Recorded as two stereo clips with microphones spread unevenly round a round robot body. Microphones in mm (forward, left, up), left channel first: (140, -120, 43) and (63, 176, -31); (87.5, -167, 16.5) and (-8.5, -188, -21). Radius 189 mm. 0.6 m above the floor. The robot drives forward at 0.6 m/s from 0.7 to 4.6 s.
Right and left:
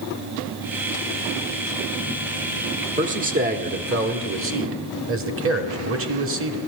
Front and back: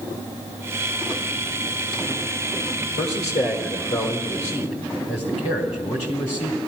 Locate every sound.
3.0 s a man speaking: 50° left, 1.9 m; by 6.6 s 85° left, 1.5 m